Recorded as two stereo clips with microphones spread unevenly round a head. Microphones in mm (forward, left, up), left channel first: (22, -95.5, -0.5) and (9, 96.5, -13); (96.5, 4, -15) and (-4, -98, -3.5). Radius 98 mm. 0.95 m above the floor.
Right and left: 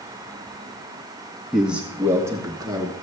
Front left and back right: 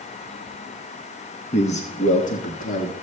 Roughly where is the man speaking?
Ahead.